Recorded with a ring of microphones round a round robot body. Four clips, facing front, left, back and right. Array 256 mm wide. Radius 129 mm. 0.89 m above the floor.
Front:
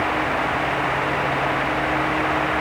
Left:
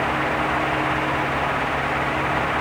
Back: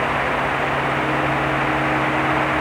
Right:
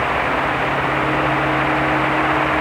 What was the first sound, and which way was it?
Only background noise.